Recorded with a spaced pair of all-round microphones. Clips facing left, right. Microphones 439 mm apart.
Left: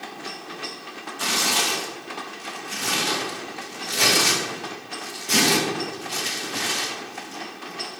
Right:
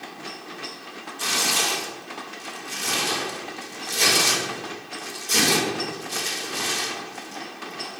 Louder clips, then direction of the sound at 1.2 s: Left 1 dB; 80° left.